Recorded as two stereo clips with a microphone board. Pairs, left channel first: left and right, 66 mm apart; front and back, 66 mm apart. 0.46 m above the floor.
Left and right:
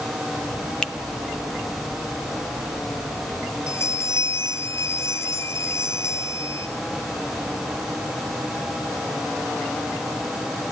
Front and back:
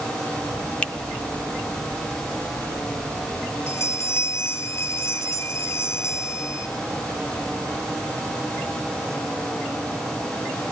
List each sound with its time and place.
0.8 s a finger snap: 45° left, 0.6 m
3.7 s a bell: 45° left, 1.5 m